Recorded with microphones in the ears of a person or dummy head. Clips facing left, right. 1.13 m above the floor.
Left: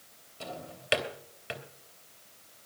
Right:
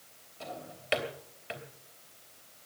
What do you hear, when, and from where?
0.4 s a drawer: 20° left (ahead or behind), 3 m